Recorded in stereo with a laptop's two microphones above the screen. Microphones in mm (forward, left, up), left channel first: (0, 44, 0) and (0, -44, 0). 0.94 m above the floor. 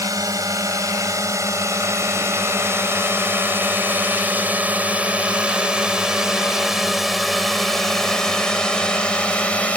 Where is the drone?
45° right (ahead or behind); by 9.8 s 15° left (ahead or behind).